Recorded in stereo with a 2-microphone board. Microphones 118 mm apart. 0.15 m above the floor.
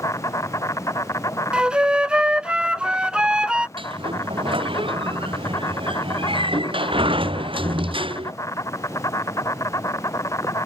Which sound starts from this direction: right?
A sliding door, at 3.8 s.